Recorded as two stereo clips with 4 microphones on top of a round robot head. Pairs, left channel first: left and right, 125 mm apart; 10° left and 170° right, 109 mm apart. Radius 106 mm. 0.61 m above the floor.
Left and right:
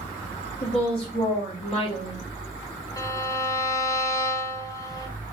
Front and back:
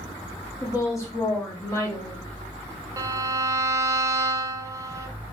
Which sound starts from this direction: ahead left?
A woman speaking, at 0.6 s.